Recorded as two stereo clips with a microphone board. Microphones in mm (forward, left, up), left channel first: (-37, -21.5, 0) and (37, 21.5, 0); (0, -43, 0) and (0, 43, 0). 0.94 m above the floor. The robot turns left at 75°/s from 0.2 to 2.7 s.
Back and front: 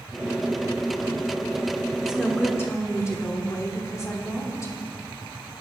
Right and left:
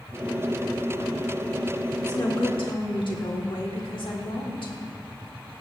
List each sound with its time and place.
2.0 s a woman speaking: 40° right, 2.5 m; by 4.7 s 95° right, 2.5 m